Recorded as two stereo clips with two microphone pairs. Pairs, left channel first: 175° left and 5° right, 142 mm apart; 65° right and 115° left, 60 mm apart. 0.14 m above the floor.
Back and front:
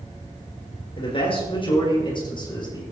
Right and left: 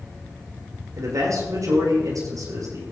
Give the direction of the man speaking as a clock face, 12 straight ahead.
8 o'clock.